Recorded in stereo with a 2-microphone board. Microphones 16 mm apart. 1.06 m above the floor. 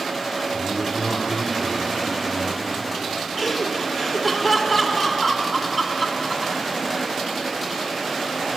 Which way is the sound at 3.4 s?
Centre (ahead or behind).